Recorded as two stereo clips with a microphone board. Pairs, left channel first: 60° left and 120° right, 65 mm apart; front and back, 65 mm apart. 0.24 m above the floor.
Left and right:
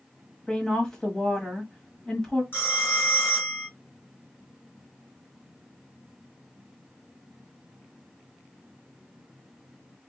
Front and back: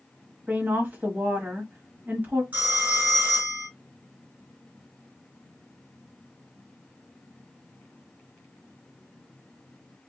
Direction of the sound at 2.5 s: 115° left.